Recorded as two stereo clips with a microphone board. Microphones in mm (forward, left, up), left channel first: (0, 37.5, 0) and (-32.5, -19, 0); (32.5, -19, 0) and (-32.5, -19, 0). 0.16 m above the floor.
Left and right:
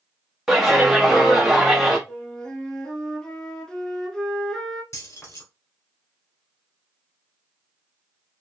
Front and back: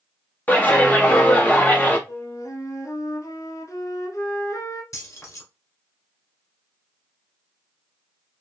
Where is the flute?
15° right, 0.8 m.